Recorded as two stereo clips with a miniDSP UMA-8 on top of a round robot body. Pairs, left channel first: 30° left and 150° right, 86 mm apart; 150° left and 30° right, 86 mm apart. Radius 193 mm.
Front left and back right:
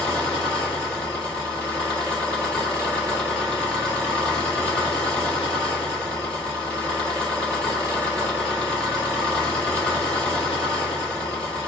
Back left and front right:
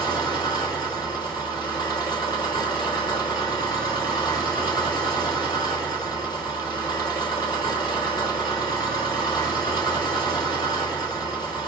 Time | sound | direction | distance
0.0 | an engine running | 110° left | 2 m